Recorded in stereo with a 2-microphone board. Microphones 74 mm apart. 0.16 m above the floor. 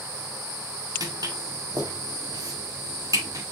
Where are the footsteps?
55° right (ahead or behind), 3.5 m; by 3.4 s 45° right (ahead or behind), 5.5 m.